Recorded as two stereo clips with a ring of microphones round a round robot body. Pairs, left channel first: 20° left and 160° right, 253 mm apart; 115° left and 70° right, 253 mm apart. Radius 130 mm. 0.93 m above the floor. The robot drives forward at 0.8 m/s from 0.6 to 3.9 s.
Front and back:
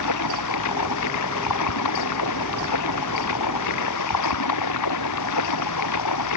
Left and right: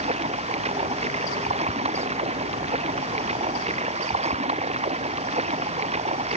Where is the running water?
Straight ahead.